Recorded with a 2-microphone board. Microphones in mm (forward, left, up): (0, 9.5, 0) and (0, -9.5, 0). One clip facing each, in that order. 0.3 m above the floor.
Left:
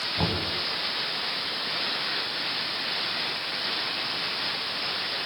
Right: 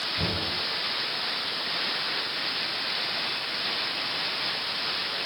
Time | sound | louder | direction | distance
0.2 | knocking | left 3 dB | 50° left (ahead or behind) | 1.9 m